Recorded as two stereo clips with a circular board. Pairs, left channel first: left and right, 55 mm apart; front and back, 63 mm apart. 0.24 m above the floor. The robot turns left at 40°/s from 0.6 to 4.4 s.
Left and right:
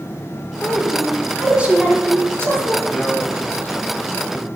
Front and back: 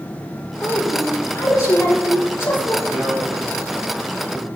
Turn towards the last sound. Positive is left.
turn(degrees=130)